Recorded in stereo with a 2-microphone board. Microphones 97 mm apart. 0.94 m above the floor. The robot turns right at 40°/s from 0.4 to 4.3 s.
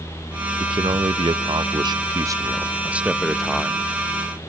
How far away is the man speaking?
About 0.8 m.